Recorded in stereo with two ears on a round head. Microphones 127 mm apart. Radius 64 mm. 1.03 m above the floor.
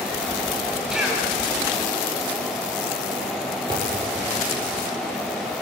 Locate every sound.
0.9 s a cough: 5° right (ahead or behind), 6.5 m
3.7 s a thud: 30° right (ahead or behind), 7.5 m